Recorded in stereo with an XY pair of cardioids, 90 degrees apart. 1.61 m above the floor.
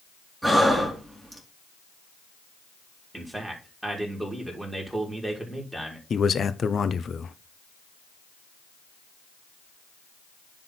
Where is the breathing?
10° right, 3 m.